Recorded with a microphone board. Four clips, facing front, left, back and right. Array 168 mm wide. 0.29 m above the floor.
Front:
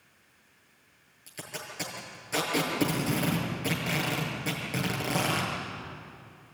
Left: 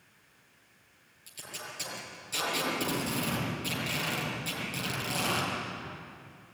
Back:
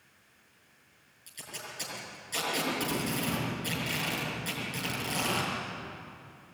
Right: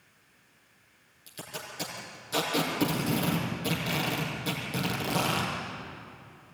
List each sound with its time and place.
1.3 s tape being pulled: 30° right, 6 m